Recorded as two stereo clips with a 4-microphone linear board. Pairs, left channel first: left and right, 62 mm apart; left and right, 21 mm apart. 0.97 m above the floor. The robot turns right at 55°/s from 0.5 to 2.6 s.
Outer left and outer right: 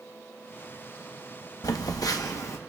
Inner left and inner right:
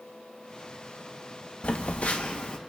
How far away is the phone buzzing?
About 0.9 m.